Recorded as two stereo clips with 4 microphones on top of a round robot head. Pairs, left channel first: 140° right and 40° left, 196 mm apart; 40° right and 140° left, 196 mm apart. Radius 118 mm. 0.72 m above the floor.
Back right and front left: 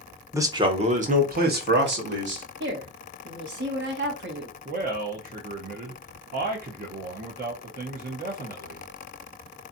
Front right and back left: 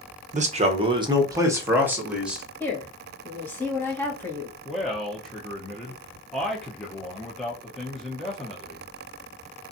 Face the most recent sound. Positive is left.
turn(degrees=45)